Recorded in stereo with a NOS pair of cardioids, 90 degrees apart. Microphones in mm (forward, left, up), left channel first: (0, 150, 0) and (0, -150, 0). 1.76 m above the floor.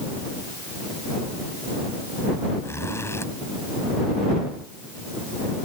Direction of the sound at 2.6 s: 10° left.